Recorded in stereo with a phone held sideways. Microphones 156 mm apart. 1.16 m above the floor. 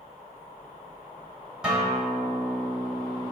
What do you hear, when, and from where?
1.6 s a guitar: 5° right (ahead or behind), 1.2 m